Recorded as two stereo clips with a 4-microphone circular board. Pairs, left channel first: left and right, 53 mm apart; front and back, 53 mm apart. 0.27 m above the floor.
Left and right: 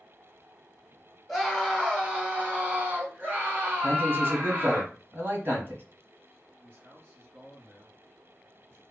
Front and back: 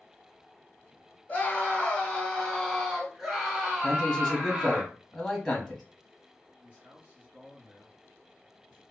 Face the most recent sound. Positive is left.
turn(degrees=-120)